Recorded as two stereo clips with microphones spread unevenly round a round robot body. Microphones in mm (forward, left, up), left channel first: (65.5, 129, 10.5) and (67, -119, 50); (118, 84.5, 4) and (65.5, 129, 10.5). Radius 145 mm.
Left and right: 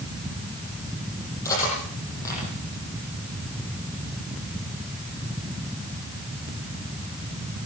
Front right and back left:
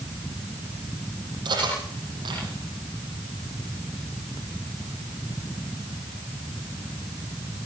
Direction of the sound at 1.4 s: 170° left.